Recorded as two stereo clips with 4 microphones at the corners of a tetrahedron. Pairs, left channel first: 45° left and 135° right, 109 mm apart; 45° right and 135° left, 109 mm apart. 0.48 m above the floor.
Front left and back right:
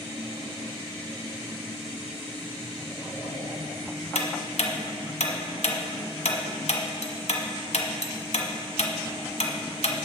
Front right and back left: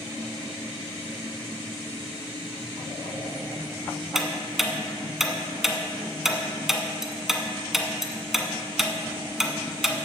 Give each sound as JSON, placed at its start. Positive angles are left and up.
{"t": 4.2, "sound": "ticking", "azimuth_deg": 50, "distance_m": 1.0}